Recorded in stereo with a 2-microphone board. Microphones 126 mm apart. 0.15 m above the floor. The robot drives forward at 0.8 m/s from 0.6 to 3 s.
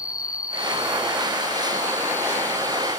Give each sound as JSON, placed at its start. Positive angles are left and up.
{"t": 0.0, "sound": "an insect", "side_deg": 30, "distance_m": 1.0}